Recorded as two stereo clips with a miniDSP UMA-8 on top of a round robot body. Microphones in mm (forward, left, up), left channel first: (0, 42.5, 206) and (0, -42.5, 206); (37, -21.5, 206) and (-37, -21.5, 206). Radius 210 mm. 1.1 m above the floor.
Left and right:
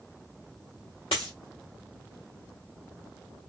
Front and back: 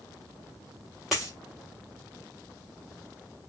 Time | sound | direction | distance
1.1 | a dropped coin | 90° left | 0.5 m